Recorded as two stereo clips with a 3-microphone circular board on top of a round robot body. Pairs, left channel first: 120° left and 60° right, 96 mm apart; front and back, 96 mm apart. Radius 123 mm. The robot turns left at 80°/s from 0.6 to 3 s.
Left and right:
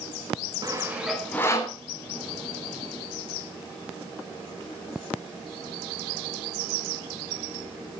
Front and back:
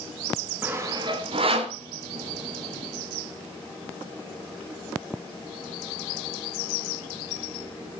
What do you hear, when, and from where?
0.6 s sawing: 110° right, 3 m; by 1.8 s 160° left, 3 m